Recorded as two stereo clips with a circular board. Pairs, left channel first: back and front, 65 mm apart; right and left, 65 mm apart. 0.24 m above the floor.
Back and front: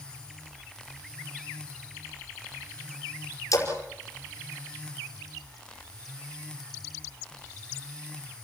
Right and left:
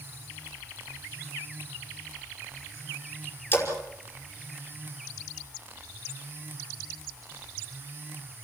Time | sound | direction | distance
3.5 | a splash | 145° right | 5 m